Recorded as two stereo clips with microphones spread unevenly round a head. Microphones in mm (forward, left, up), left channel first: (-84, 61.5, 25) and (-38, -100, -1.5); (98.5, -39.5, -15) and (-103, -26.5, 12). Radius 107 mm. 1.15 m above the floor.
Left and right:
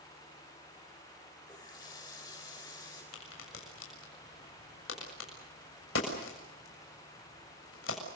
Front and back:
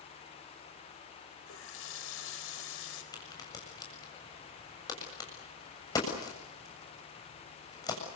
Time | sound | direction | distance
1.5 | a running tap | 30° left | 4 m
3.1 | a crack | 70° left | 7 m